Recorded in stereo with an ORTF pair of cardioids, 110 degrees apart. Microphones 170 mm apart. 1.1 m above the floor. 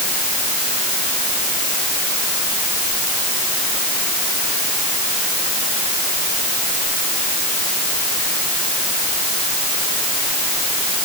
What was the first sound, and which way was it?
Only background noise.